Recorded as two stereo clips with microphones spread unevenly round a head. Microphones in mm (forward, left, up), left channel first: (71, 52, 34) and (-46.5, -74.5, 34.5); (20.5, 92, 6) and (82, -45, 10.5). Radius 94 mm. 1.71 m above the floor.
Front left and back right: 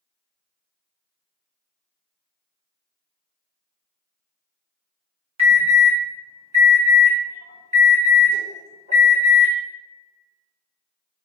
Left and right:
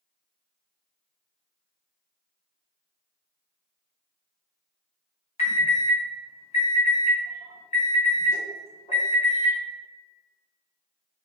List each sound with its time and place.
5.4 s an alarm: 175° left, 1.7 m